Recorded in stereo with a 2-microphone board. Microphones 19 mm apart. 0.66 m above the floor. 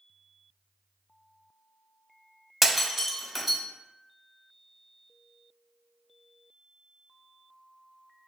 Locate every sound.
2.6 s breaking glass: 10° right (ahead or behind), 1.2 m